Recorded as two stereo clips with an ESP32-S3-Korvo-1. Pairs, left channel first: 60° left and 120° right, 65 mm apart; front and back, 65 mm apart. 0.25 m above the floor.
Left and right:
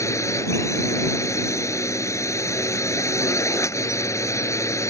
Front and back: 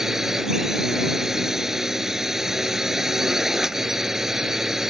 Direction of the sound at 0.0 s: 95° left.